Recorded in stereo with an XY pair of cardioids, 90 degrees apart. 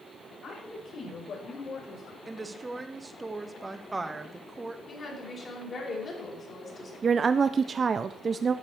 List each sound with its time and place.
0.4 s a woman speaking: 65° left, 6 m; by 2.2 s 70° left, 5.5 m
2.3 s a woman speaking: 20° right, 1.6 m
4.9 s a woman speaking: 50° left, 5.5 m
7.0 s a woman speaking: 45° right, 0.6 m